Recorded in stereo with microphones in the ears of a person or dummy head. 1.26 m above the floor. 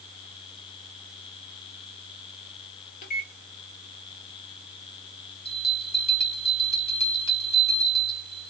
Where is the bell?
35° left (ahead or behind), 1.1 m.